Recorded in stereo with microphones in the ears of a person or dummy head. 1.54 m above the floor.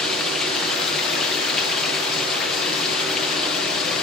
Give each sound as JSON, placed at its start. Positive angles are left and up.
{"t": 0.0, "sound": "running water", "side_deg": 0, "distance_m": 1.1}